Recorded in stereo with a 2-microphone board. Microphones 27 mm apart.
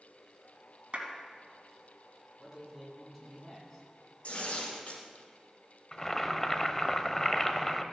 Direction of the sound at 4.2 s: 60° left (ahead or behind).